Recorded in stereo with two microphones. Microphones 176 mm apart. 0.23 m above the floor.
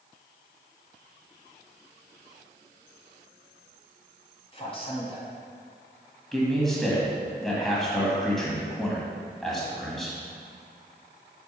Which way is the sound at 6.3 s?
Centre (ahead or behind).